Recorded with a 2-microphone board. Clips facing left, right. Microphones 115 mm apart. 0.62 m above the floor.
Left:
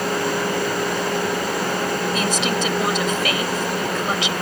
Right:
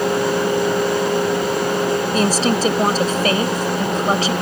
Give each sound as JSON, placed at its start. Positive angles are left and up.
{"t": 2.1, "sound": "a woman speaking", "side_deg": -40}